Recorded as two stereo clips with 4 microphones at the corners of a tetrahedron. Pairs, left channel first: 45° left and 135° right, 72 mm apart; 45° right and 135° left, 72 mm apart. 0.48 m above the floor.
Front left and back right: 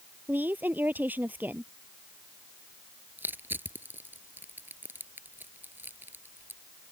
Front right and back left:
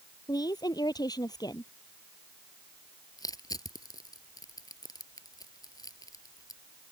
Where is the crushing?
75° right.